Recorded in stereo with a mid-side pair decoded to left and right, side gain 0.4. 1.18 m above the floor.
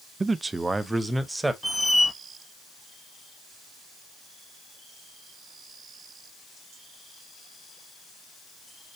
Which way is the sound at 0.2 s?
35° right.